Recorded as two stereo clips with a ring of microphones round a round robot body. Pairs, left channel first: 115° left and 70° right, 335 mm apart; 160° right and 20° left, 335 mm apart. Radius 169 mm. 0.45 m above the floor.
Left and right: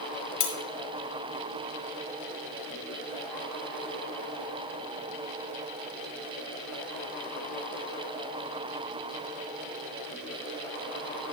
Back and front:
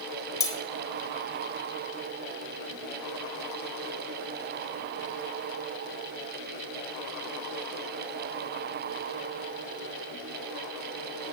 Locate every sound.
0.4 s cutlery clinking: 120° left, 1.7 m